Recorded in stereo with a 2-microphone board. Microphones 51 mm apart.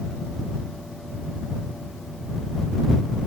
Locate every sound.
Only background noise.